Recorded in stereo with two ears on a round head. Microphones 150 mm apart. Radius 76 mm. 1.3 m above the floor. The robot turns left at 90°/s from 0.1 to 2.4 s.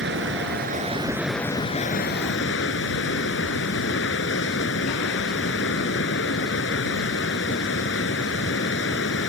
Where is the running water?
70° right; by 9.3 s 80° left.